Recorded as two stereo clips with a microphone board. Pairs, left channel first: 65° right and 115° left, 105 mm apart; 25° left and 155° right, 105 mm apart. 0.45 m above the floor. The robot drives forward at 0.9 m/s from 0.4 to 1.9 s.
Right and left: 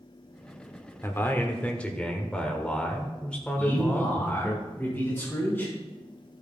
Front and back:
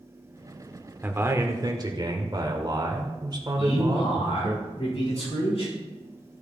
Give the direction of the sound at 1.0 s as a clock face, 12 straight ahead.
3 o'clock.